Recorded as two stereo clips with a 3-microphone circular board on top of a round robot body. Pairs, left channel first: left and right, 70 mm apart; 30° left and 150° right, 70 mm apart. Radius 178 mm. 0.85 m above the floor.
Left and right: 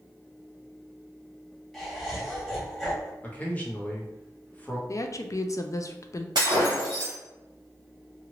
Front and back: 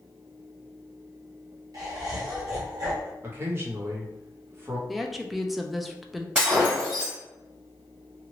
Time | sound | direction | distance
1.7 | laughter | 175° left | 1.7 m
3.2 | a man speaking | 155° left | 1.2 m
4.9 | a woman speaking | 120° left | 0.5 m
6.3 | breaking glass | 80° right | 0.8 m